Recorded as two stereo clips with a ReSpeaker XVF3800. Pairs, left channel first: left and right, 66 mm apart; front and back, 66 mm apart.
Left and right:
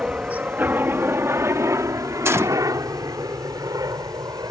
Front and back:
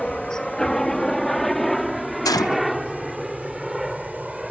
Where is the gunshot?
35° right.